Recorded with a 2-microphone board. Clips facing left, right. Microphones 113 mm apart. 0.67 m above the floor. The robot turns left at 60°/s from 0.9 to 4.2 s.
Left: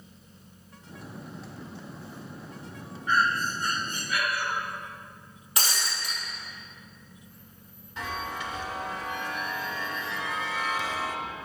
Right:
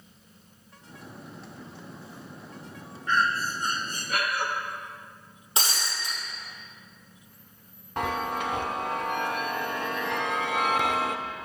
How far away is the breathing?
About 1.0 m.